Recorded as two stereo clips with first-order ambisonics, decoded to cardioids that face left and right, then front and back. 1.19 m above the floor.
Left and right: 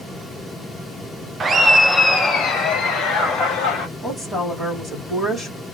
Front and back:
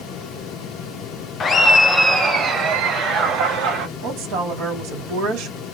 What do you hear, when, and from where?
1.4 s laughter: 40° right, 0.6 m; by 3.9 s 135° left, 1.2 m
4.0 s a woman speaking: 165° left, 1.4 m